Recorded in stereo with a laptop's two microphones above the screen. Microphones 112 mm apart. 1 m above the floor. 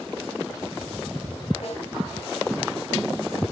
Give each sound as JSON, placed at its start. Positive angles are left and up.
{"t": 1.6, "sound": "a snare drum", "side_deg": 75, "distance_m": 4.5}